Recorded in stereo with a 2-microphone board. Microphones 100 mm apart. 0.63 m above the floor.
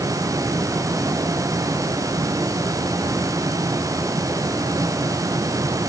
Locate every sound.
Only background noise.